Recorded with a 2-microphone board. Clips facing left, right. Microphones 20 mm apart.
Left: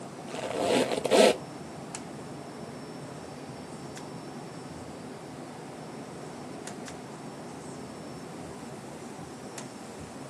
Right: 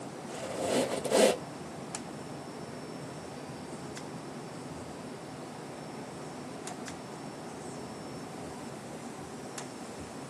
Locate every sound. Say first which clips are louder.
0.3 s a squeak: left 5 dB; 50° left (ahead or behind), 0.5 m